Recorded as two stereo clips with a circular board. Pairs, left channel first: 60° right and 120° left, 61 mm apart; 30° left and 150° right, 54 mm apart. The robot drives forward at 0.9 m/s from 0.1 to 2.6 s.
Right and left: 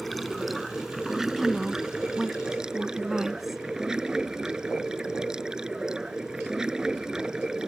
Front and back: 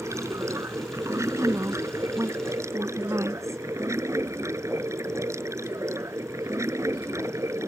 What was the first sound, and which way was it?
Running water, 150° right.